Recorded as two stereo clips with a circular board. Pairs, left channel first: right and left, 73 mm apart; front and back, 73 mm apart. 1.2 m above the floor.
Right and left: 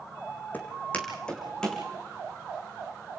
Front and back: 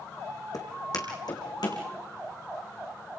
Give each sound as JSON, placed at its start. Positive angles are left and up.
{"t": 0.5, "sound": "footsteps", "azimuth_deg": -25, "distance_m": 3.5}